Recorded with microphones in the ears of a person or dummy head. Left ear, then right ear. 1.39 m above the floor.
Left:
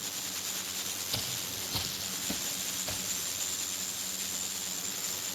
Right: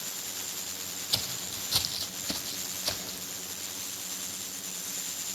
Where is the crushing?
I don't hear crushing.